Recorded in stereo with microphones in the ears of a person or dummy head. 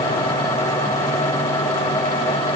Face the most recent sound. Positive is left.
No sound to turn to.